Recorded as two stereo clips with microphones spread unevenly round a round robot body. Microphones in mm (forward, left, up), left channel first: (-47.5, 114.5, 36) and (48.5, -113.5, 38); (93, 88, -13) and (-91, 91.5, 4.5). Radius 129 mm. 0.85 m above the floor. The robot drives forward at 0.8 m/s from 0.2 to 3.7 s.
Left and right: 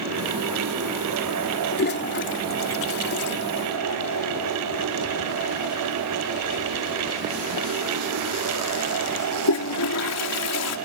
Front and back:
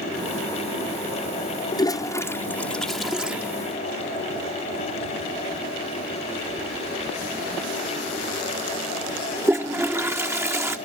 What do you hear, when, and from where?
1.7 s a toilet flushing: 65° left; by 10.8 s 100° left